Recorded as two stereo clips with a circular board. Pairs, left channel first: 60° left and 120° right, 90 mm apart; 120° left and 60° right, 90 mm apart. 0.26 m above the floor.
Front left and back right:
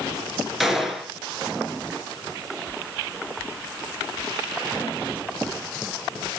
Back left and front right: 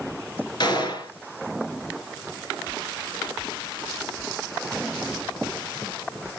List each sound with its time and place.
0.6 s a gunshot: 155° left, 3 m